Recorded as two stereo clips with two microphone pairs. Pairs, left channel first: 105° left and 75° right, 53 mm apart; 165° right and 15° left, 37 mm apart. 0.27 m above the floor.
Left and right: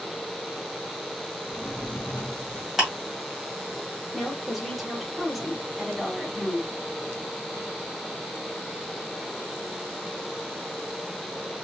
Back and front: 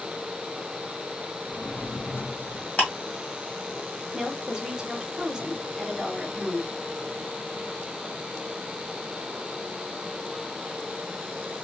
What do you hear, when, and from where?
1.5 s a drawer: 160° left, 1.2 m
2.8 s ticking: 155° right, 1.9 m
4.1 s a woman speaking: 10° left, 0.9 m